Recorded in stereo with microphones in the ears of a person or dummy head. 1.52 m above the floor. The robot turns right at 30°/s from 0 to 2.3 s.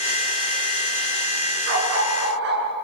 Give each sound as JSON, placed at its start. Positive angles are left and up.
{"t": 1.7, "sound": "a dog barking", "side_deg": -60, "distance_m": 7.0}